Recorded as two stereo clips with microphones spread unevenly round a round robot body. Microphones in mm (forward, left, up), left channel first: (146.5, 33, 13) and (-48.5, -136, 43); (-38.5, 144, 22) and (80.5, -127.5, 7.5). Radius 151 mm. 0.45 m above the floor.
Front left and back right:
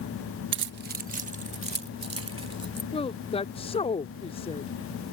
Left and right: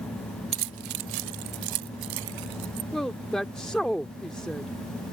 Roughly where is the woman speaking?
Ahead left.